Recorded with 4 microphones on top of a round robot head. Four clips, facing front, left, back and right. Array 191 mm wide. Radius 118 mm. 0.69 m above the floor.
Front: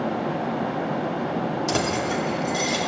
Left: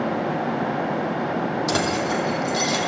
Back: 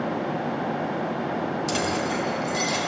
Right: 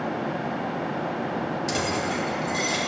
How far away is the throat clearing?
I don't hear throat clearing.